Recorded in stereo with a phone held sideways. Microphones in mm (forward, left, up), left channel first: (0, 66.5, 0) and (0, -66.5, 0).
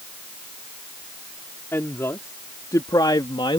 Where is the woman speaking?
20° left (ahead or behind); by 3.6 s 40° left (ahead or behind).